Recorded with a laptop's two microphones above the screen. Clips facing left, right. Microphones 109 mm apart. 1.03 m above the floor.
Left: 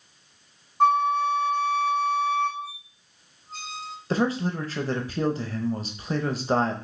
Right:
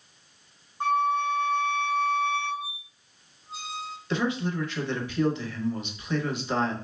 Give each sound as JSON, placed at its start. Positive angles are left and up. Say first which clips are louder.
{"t": 0.8, "sound": "a flute", "louder": "left 4 dB", "side_deg": 75, "distance_m": 0.8}
{"t": 2.6, "sound": "a squeak", "louder": "left 1 dB", "side_deg": -5, "distance_m": 0.6}
{"t": 4.1, "sound": "a man speaking", "louder": "left 3 dB", "side_deg": 40, "distance_m": 0.7}